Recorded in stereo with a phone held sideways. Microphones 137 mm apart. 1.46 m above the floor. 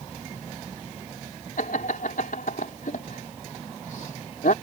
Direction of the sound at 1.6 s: 85° left.